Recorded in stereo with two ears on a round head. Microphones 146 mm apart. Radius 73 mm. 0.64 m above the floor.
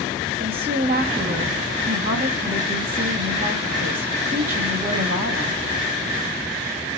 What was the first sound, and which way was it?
A woman speaking, 65° right (ahead or behind).